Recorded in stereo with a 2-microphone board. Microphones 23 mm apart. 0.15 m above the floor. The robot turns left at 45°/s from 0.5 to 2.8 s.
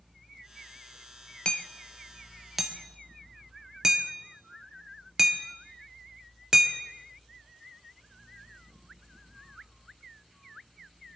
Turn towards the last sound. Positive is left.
turn(degrees=-20)  # may be behind; listen again after turning